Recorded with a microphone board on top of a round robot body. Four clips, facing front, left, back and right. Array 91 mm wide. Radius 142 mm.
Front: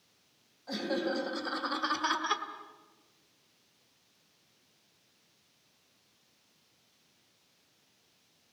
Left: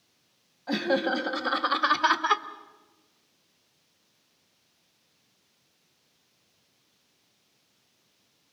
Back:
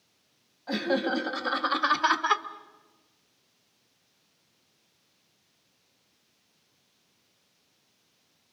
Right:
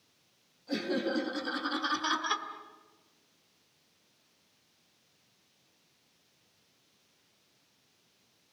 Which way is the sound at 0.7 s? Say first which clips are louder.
Left 6 dB, back 5 dB; 115° left.